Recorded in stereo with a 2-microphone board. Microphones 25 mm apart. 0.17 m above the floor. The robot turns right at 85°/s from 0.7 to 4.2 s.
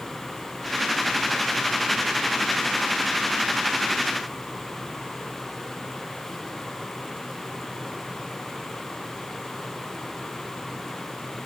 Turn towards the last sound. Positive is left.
No sound to turn to.